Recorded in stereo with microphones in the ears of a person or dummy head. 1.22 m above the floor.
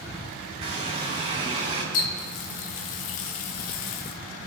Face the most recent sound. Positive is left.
turn(degrees=60)  # may be behind; listen again after turning